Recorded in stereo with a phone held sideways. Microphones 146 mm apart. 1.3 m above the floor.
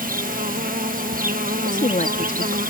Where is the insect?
75° right (ahead or behind).